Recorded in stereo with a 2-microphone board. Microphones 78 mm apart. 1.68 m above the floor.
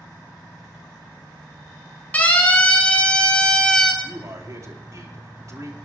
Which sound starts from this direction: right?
A man speaking, at 4.0 s.